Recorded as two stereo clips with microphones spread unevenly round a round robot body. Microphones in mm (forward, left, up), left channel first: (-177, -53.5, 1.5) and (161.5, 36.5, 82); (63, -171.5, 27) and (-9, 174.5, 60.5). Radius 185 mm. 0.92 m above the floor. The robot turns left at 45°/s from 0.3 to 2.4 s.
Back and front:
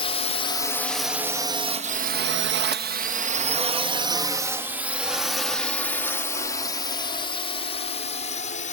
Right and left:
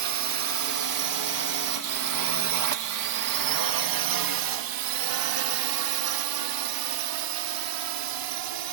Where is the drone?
135° left; by 8.7 s 130° left.